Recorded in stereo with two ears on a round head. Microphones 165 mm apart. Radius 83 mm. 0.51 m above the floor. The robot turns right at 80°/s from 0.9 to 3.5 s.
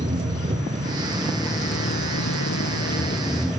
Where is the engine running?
30° right, 2.5 m; by 3.6 s straight behind, 2.5 m.